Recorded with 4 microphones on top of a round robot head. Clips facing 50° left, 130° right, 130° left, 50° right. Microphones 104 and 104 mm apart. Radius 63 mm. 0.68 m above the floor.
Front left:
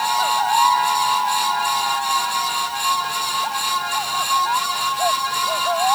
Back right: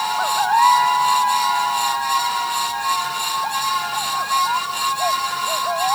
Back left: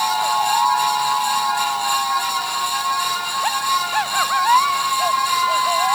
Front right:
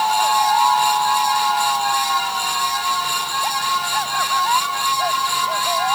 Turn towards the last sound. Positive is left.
No sound to turn to.